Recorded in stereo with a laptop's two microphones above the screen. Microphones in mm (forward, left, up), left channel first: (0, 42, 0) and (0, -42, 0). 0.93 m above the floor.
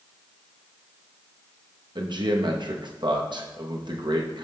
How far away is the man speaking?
About 0.9 m.